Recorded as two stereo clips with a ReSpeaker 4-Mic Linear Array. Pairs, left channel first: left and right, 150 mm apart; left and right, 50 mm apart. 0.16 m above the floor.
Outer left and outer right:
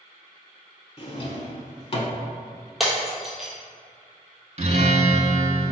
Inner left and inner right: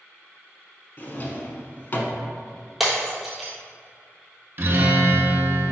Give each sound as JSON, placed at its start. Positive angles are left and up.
{"t": 1.0, "sound": "a drawer", "side_deg": 40, "distance_m": 0.6}
{"t": 2.8, "sound": "breaking glass", "side_deg": 0, "distance_m": 1.2}
{"t": 4.6, "sound": "a guitar", "side_deg": -45, "distance_m": 0.5}